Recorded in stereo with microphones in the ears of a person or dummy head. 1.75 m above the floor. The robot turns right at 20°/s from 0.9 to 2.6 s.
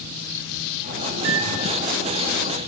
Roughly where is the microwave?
Right.